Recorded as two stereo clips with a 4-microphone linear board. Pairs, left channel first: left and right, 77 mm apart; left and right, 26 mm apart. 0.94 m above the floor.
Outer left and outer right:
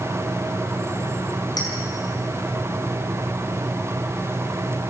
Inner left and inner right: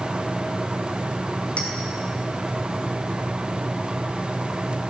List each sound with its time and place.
1.6 s a clink: 60° left (ahead or behind), 6 m